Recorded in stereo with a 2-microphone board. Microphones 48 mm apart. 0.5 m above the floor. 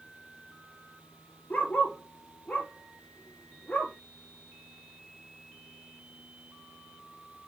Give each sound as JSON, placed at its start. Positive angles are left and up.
{"t": 1.5, "sound": "a dog barking", "side_deg": 30, "distance_m": 5.0}